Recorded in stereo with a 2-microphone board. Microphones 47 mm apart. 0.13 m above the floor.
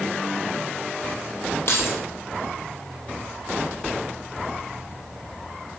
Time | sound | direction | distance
1.7 | keys jangling | 60° left (ahead or behind) | 2 m